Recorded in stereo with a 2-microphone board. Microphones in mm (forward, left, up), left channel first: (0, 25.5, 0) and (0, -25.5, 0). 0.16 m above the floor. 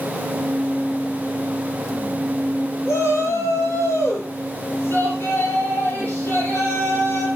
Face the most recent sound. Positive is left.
turn(degrees=55)  # may be behind; listen again after turning